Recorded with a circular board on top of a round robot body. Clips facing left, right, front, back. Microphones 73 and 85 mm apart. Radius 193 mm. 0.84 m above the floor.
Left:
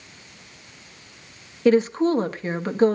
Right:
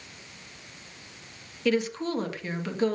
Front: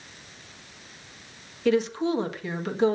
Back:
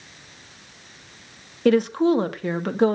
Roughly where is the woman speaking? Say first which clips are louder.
Left 9 dB, back 5 dB; behind left.